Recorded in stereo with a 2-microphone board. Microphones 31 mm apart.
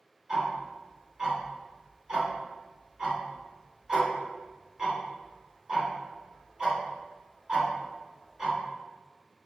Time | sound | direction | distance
0.3 | ticking | 25° right (ahead or behind) | 1.4 m